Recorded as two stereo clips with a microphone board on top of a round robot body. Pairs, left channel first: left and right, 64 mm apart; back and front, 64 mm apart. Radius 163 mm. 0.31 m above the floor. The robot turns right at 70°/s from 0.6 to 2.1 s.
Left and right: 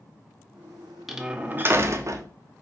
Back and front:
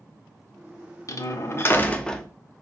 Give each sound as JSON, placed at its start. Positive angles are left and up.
{"t": 1.1, "sound": "a door slam", "azimuth_deg": -175, "distance_m": 0.7}